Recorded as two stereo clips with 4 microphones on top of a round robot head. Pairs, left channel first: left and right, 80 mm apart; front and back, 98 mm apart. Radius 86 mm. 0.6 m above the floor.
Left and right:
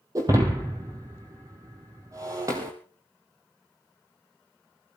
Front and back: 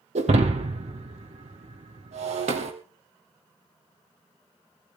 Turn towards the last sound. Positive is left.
turn(degrees=-155)